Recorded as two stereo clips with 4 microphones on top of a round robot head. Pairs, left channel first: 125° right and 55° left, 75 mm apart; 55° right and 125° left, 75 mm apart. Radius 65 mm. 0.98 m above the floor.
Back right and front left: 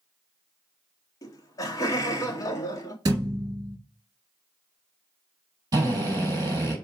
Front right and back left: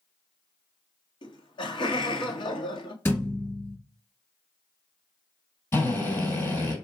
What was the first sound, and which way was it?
Laughter, 75° right.